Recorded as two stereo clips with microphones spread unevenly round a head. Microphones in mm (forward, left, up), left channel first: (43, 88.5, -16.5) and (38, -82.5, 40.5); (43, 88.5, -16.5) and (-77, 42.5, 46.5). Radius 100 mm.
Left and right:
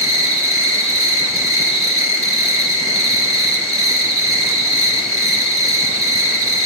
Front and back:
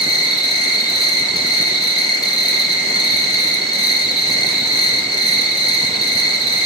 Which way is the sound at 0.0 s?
20° left.